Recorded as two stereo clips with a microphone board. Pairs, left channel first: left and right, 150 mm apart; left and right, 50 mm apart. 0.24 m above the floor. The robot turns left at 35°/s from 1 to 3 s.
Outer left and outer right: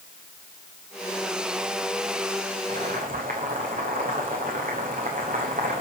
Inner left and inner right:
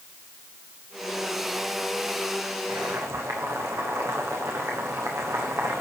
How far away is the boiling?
About 3.5 m.